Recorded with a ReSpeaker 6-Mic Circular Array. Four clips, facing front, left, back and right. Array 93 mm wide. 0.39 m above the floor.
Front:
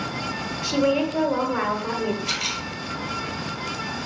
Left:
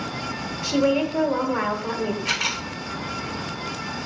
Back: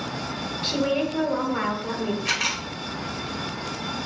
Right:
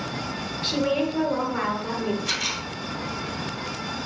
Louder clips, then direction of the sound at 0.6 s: Left 3 dB, front 3 dB; 45° left.